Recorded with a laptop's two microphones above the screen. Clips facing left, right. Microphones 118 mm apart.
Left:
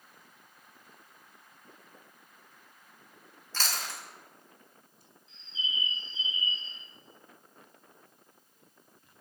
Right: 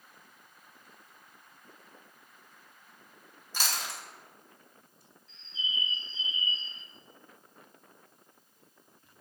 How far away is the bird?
About 1.8 m.